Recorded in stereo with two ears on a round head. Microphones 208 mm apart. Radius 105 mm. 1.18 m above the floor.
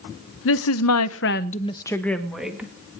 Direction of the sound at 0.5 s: 60° left (ahead or behind).